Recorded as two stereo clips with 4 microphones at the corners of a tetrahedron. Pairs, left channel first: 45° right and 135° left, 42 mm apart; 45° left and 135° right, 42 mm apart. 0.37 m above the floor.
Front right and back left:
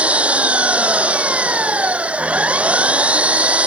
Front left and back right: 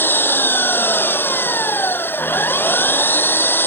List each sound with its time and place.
0.0 s an engine running: 80° left